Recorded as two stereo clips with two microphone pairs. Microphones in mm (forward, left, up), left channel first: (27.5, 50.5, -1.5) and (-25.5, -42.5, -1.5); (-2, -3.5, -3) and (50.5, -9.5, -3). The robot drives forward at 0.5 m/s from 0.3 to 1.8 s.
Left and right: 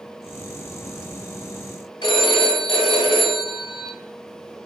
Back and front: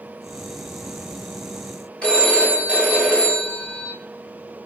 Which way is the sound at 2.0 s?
100° left.